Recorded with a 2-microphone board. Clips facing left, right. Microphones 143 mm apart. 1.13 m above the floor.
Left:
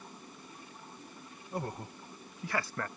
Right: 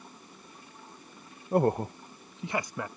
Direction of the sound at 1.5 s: 65° right (ahead or behind).